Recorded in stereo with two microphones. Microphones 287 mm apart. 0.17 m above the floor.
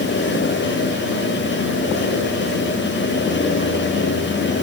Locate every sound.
Only background noise.